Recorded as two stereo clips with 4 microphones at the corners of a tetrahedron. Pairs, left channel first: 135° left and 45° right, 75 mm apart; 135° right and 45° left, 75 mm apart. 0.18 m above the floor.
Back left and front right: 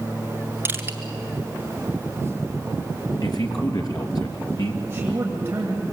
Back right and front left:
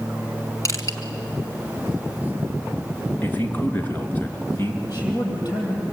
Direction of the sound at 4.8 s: 105° right.